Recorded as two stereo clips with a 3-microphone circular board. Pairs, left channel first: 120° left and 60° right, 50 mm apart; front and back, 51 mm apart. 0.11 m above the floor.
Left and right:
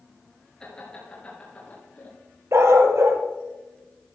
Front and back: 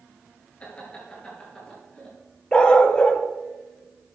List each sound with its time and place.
0.6 s laughter: 50° left, 2.5 m; by 2.1 s 70° left, 3 m
2.5 s a dog barking: 70° right, 1.0 m